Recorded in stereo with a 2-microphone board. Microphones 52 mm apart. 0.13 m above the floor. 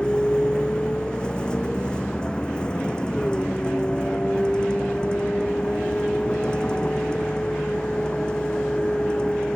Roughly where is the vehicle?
Centre.